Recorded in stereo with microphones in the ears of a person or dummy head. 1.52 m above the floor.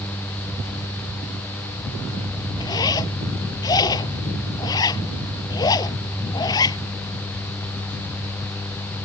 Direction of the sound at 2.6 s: 20° left (ahead or behind).